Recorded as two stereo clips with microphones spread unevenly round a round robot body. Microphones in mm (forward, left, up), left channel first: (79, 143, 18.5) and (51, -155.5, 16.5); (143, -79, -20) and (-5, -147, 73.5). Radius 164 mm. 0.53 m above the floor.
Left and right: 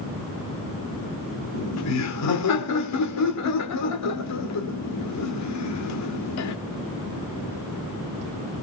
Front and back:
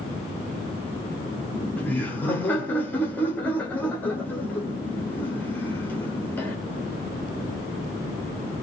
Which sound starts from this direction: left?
Laughter, at 1.5 s.